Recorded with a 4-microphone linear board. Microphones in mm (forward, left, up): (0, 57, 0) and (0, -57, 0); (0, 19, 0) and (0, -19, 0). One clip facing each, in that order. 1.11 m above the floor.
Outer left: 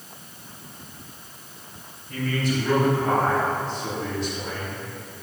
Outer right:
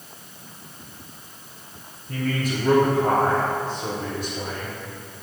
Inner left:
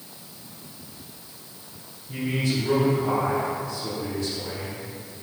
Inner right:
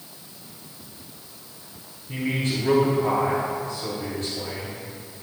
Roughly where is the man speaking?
Right.